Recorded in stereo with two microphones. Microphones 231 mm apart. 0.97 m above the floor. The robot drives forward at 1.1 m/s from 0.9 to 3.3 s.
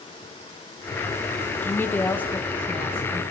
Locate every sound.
1.6 s a woman speaking: 10° left (ahead or behind), 0.8 m; by 3.2 s 5° left (ahead or behind), 1.7 m